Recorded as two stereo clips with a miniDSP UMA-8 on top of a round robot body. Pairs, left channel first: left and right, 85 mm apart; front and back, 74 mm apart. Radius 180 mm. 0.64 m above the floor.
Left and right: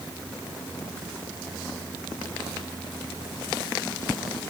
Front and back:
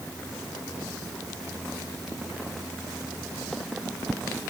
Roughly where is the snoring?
I don't hear snoring.